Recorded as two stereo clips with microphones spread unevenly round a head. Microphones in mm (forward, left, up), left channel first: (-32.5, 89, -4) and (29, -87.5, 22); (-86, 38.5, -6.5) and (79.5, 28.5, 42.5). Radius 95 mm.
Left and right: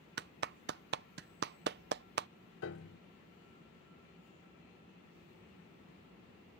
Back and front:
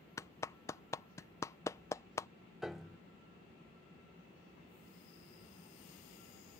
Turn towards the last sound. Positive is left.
turn(degrees=80)